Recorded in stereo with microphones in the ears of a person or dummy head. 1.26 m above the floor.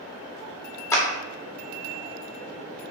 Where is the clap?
15° left (ahead or behind), 0.5 m.